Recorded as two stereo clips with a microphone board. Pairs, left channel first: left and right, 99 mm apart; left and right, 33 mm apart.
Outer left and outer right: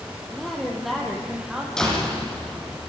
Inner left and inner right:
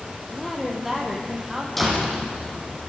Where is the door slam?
5° left (ahead or behind), 6.5 m.